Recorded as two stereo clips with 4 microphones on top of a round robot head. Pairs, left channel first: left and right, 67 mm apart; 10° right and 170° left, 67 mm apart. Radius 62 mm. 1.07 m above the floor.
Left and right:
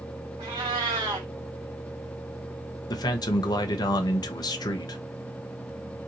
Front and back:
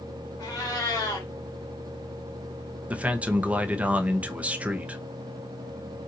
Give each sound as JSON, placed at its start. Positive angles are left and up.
{"t": 0.4, "sound": "a cat meowing", "azimuth_deg": -65, "distance_m": 1.3}
{"t": 2.9, "sound": "a man speaking", "azimuth_deg": 100, "distance_m": 0.8}